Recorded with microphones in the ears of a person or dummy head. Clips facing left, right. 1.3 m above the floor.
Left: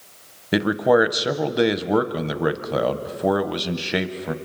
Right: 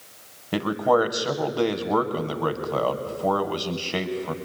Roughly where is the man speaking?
Left.